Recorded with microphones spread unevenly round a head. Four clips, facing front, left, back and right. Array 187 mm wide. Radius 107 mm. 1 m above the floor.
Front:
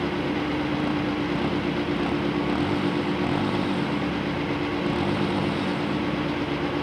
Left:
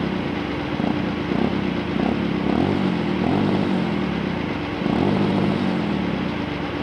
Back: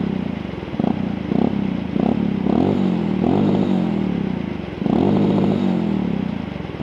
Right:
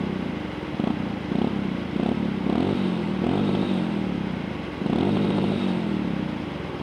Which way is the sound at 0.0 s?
Straight behind.